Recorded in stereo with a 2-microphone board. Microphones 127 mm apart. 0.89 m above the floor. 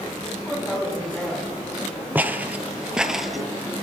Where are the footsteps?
15° right (ahead or behind), 1.0 m; by 3.4 s centre (ahead or behind), 1.0 m.